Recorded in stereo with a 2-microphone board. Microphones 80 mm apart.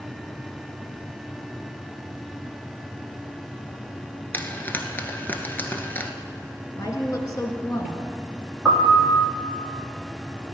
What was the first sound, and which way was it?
Frying, 25° left (ahead or behind).